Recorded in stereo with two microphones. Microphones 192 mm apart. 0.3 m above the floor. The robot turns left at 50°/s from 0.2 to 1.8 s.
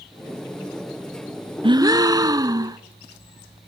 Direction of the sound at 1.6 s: 30° right (ahead or behind).